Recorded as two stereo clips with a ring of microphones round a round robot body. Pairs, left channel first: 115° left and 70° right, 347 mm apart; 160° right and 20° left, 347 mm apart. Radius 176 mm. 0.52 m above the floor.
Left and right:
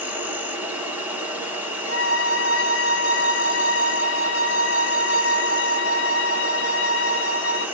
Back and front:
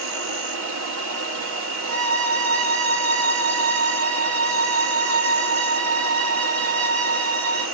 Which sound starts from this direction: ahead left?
A violin, at 1.9 s.